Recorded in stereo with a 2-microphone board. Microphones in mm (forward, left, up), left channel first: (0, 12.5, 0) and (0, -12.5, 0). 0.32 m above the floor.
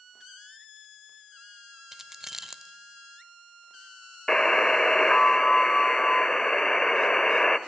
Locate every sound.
1.9 s keys jangling: 20° right (ahead or behind), 0.5 m
4.3 s a buzzer: 20° left (ahead or behind), 0.8 m